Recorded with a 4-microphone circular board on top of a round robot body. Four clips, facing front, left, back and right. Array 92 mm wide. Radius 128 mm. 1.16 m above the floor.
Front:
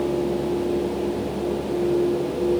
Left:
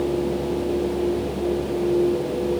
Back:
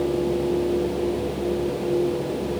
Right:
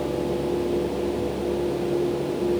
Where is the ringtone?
No ringtone in this recording.